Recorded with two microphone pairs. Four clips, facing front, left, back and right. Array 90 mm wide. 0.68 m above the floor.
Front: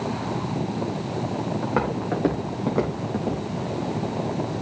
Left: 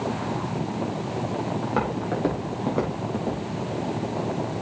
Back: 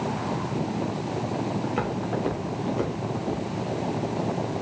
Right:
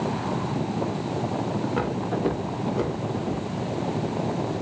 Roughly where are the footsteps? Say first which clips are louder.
Left 1 dB, front 3 dB; ahead left.